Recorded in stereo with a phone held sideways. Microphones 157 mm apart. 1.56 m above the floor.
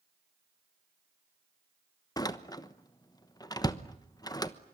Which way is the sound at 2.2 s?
25° left (ahead or behind).